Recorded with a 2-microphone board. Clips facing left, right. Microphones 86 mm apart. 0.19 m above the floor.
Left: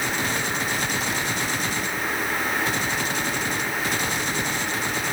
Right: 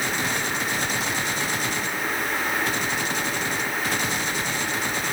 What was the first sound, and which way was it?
Only background noise.